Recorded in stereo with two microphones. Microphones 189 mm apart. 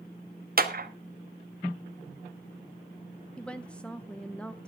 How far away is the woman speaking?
About 0.6 m.